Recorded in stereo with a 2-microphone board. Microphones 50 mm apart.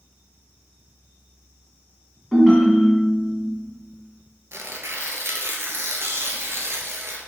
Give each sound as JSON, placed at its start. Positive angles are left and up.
{"t": 2.3, "sound": "a ringtone", "side_deg": 5, "distance_m": 1.0}
{"t": 4.5, "sound": "tearing paper", "side_deg": -60, "distance_m": 0.5}